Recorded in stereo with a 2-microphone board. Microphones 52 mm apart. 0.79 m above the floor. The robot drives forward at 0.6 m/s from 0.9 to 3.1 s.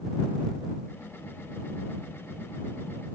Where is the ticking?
I don't hear ticking.